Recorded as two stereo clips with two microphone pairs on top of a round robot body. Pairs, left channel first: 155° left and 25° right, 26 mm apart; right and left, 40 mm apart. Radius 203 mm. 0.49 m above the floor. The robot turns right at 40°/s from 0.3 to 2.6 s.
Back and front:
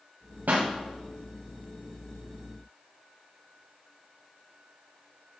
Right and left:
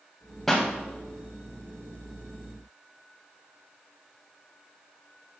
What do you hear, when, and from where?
0.5 s a pop: 5° right, 0.6 m; by 0.7 s straight ahead, 0.6 m